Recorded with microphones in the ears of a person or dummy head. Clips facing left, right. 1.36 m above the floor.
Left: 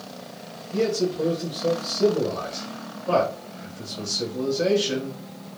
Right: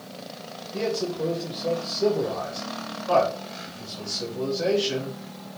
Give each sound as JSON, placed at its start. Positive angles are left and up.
{"t": 0.7, "sound": "a man speaking", "side_deg": 55, "distance_m": 2.5}